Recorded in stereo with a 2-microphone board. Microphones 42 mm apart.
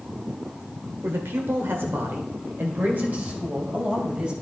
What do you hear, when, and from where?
1.0 s a man speaking: 65° right (ahead or behind), 1.8 m; by 4.3 s 25° right (ahead or behind), 3 m